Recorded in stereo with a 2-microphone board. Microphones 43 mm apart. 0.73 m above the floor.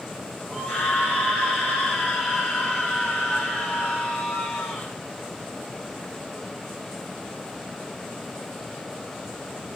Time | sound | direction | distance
0.5 | a scream | 50° left (ahead or behind) | 4.5 m